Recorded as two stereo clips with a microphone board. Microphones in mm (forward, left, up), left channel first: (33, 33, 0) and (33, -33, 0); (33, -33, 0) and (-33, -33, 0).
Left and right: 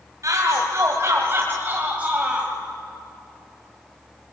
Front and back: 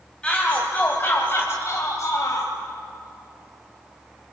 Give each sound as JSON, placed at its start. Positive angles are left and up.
{"t": 0.2, "sound": "a shout", "azimuth_deg": -75, "distance_m": 2.0}